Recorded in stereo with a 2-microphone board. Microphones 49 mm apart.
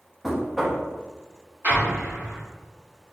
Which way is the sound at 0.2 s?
5° right (ahead or behind).